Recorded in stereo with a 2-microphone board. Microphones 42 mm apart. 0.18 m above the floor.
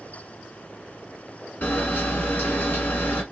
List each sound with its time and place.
1.6 s a camera shutter: 50° left (ahead or behind), 1.5 m